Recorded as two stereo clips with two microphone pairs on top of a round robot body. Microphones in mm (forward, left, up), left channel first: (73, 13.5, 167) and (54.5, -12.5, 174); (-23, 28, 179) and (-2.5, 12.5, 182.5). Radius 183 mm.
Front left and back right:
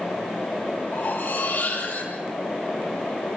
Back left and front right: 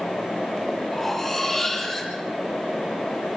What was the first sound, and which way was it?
Cutlery clinking, 70° left.